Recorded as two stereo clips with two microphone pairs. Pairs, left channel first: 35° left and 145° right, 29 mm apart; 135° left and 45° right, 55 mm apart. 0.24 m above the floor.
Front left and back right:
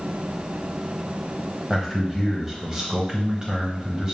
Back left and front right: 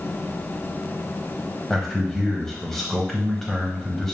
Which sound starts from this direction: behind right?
A man speaking, at 1.7 s.